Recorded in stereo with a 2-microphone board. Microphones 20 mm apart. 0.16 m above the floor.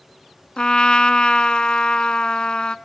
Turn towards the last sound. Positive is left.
turn(degrees=45)  # may be behind; listen again after turning